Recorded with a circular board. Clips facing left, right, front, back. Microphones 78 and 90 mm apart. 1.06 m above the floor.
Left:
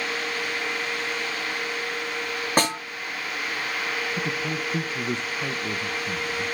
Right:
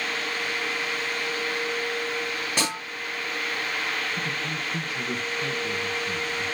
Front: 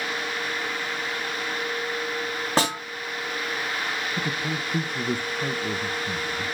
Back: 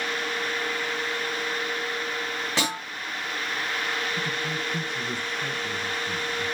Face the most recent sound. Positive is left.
turn(degrees=30)